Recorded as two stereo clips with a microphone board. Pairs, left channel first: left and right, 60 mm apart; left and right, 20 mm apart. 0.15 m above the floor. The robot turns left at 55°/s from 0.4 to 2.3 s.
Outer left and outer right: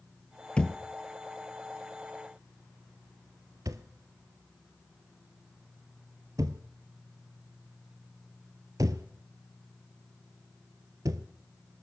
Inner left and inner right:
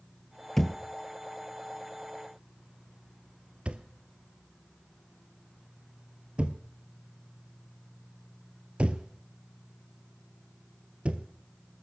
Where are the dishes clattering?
No dishes clattering in this recording.